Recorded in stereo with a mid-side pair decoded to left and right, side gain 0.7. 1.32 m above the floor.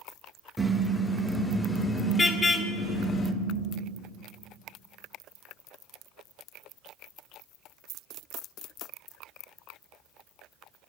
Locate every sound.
0.6 s a car horn: straight ahead, 3 m; by 3.3 s 35° left, 2.5 m